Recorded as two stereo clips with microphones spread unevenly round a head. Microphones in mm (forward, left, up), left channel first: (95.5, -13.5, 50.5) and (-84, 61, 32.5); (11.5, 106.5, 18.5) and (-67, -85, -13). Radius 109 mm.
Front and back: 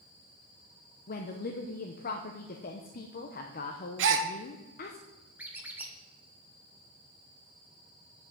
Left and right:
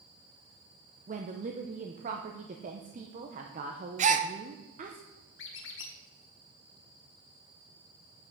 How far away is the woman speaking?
About 0.8 m.